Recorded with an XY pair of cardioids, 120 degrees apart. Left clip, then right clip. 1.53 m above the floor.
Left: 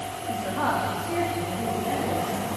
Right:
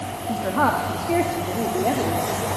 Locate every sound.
0.3 s a woman speaking: 45° right, 2.5 m; by 2.5 s 65° right, 4 m